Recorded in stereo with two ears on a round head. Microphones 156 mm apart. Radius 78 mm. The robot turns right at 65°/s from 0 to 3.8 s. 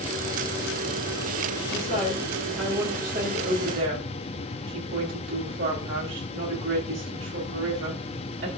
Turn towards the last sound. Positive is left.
turn(degrees=-105)